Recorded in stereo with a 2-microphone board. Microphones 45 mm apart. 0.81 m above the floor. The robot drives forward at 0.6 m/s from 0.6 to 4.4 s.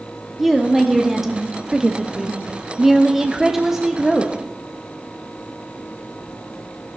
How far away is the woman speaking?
About 1.7 m.